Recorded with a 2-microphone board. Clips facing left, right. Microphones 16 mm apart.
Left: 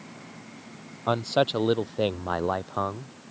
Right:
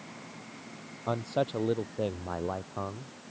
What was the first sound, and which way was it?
A man speaking, 55° left (ahead or behind).